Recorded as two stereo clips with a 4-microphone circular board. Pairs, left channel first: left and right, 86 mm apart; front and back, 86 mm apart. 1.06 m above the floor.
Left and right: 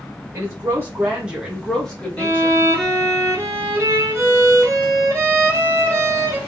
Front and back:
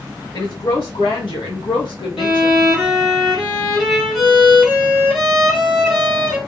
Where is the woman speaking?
40° right, 1.1 m; by 2.6 s 25° left, 1.2 m.